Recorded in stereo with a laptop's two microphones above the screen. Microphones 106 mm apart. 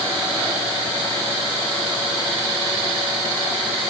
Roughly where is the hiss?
No hiss in this recording.